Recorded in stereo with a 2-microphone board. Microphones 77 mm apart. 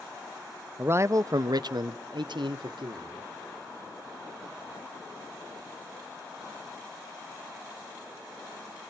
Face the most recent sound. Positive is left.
turn(degrees=-85)